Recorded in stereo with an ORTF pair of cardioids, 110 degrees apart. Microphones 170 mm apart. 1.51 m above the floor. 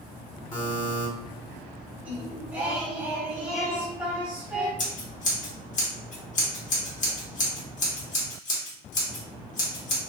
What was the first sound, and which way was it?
A buzzer, 20° left.